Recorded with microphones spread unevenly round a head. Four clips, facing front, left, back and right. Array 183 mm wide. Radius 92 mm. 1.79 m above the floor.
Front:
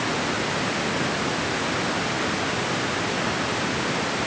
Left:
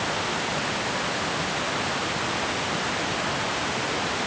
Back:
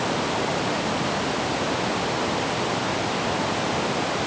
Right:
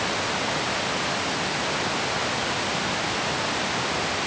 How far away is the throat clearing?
I don't hear throat clearing.